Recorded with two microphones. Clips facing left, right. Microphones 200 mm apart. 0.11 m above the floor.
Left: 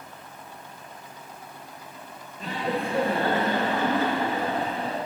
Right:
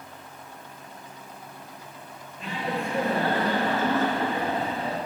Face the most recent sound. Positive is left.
turn(degrees=-5)  # may be behind; listen again after turning